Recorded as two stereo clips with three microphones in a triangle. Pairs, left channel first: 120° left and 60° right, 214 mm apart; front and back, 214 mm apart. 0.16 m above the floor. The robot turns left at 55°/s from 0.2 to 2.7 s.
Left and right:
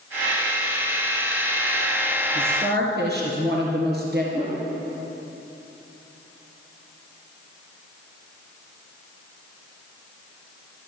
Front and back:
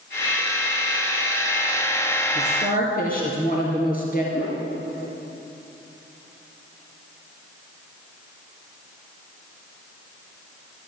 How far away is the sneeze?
No sneeze in this recording.